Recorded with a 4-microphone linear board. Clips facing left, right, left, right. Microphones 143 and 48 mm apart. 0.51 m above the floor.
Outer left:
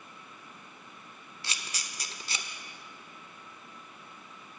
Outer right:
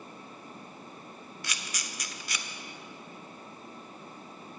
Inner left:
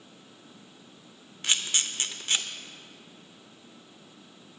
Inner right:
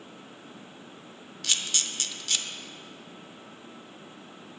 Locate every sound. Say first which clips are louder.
1.4 s a camera shutter: even, inner left 2 dB; 30° left (ahead or behind), 0.6 m